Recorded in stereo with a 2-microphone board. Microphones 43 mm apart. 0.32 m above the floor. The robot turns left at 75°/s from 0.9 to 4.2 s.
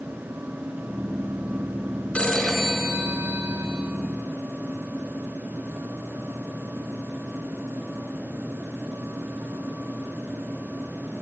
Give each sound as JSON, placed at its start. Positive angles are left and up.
{"t": 2.1, "sound": "a phone ringing", "azimuth_deg": 30, "distance_m": 3.0}